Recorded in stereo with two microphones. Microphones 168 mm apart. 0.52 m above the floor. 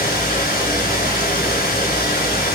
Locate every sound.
0.0 s running water: 65° left (ahead or behind), 2.0 m